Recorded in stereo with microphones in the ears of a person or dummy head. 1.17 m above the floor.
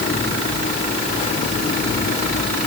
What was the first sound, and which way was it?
Only background noise.